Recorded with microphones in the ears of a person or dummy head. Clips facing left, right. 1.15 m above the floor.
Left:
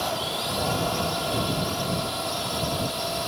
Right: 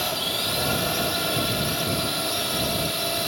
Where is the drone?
30° right (ahead or behind).